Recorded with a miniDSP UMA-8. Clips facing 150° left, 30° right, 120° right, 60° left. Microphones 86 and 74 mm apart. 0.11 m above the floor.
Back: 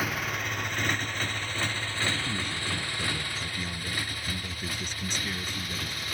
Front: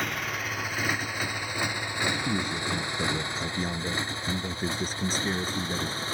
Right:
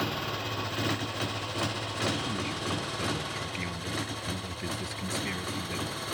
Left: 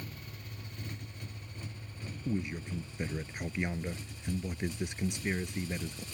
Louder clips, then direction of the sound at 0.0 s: Even, right 16 dB; 125° right.